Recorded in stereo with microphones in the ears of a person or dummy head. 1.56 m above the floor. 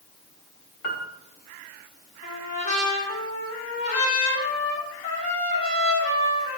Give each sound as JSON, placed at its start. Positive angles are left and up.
{"t": 0.8, "sound": "a piano", "side_deg": 55, "distance_m": 1.0}
{"t": 2.2, "sound": "a trumpet", "side_deg": 40, "distance_m": 2.0}